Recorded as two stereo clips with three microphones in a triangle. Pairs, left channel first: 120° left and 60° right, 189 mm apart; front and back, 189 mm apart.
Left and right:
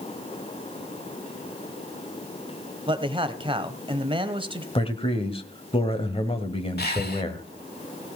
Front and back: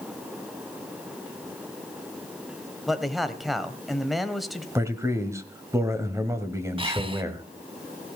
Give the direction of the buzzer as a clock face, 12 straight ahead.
No buzzer in this recording.